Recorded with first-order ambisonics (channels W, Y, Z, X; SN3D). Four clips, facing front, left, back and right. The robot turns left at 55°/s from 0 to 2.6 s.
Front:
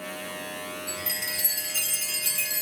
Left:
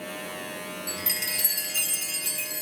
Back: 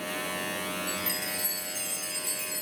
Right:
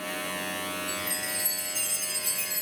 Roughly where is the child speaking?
No child speaking in this recording.